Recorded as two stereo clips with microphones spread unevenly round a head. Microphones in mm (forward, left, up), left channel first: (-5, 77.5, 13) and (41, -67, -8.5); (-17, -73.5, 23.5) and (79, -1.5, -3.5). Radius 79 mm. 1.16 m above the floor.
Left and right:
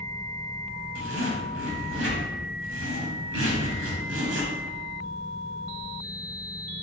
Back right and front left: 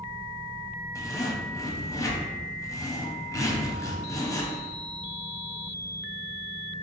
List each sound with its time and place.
0.9 s a zipper: 85° right, 1.2 m